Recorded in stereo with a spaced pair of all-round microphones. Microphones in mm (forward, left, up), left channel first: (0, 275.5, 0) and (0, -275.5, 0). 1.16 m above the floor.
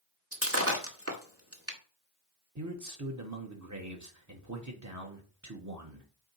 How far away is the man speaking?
About 1.2 m.